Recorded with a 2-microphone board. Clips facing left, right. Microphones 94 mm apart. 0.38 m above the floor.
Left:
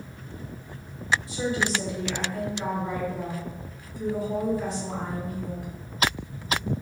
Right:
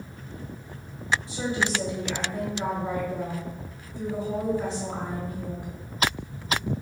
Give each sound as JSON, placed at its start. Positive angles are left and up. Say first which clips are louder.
{"t": 1.3, "sound": "a woman speaking", "louder": "left 1 dB", "side_deg": -25, "distance_m": 1.5}